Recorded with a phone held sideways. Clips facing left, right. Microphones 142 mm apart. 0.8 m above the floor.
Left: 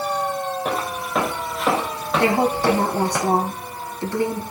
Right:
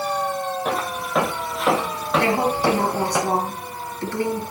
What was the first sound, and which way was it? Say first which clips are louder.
Footsteps: even; centre (ahead or behind).